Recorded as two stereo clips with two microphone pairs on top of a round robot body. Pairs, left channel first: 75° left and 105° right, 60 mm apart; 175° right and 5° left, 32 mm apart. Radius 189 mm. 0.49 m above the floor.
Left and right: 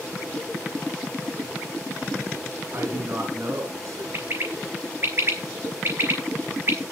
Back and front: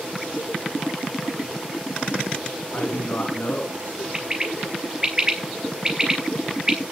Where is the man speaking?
150° right, 5.5 m; by 4.0 s 140° right, 6 m.